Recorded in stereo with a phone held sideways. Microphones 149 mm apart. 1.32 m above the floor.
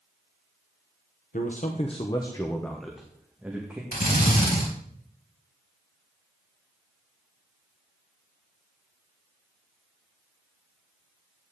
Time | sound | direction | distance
1.3 | a man speaking | 65° left (ahead or behind) | 1.2 m
3.9 | a drill | 75° left (ahead or behind) | 4.5 m